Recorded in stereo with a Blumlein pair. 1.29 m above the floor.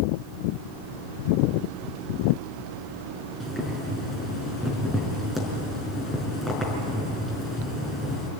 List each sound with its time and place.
3.4 s boiling: 5° left, 5 m